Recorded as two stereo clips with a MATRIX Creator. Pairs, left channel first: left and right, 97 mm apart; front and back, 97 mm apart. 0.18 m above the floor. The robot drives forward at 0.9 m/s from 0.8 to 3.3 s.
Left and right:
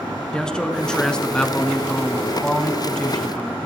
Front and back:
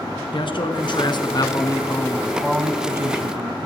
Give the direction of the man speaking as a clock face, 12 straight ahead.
12 o'clock.